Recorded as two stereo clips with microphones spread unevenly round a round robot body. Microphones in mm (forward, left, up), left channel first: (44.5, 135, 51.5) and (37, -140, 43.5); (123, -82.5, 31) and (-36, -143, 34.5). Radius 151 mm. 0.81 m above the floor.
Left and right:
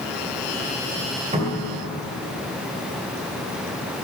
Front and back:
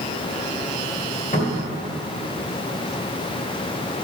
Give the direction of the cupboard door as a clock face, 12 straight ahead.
1 o'clock.